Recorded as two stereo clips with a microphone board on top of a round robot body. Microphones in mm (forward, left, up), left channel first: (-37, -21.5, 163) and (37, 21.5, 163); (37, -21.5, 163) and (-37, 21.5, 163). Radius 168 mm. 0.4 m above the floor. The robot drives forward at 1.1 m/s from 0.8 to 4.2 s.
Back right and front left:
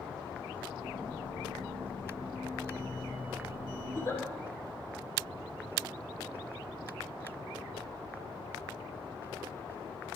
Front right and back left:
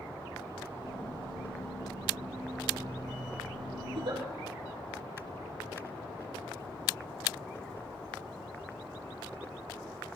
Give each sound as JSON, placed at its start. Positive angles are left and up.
{"t": 3.9, "sound": "a giggle", "azimuth_deg": 155, "distance_m": 5.5}